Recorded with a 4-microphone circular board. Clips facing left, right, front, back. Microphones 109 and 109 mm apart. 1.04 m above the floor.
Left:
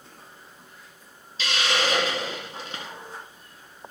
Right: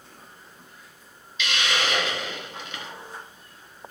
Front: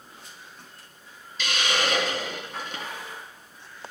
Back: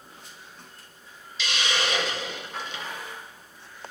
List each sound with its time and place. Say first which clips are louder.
1.4 s a hiss: left 1 dB, front 2 dB; 40° left, 1.7 m